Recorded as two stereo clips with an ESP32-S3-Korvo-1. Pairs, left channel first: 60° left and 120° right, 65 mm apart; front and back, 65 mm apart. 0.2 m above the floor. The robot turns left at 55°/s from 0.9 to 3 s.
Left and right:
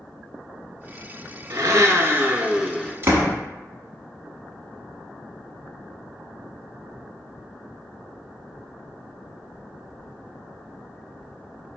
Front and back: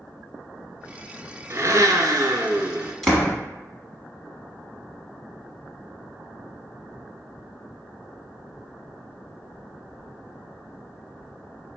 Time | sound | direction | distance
1.5 | a blender | 140° right | 0.6 m
3.0 | a door slam | 85° right | 1.0 m